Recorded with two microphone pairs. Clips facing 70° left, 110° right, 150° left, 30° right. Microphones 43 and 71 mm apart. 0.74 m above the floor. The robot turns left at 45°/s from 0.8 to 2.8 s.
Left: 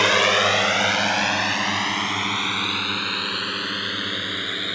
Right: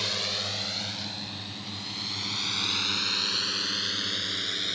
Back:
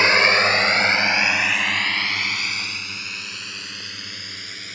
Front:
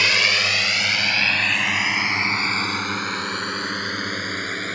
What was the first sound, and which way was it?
A drone, 90° left.